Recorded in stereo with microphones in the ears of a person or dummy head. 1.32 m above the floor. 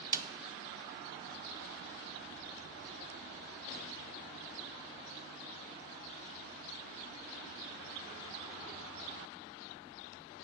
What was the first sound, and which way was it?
A snare drum, 15° right (ahead or behind).